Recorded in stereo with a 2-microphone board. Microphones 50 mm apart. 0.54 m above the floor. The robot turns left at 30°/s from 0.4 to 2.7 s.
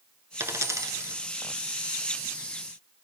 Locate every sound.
0.4 s a dropped coin: 55° right (ahead or behind), 2.0 m; by 1.2 s 75° right (ahead or behind), 2.0 m